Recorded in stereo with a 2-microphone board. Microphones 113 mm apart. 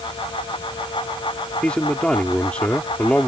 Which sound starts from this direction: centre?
A man speaking, at 1.6 s.